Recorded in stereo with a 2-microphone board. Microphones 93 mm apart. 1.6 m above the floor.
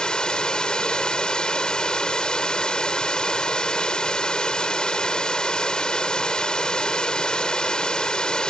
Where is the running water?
10° left (ahead or behind).